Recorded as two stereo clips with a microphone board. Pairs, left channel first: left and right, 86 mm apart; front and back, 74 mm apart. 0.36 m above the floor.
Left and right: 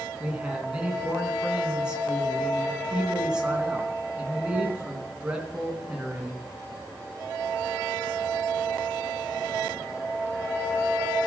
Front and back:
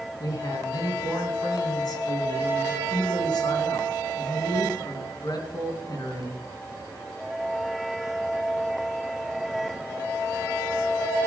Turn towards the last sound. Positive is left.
turn(degrees=-10)